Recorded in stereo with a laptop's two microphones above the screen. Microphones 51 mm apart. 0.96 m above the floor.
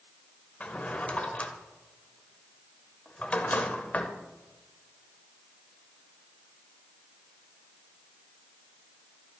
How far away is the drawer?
About 0.9 m.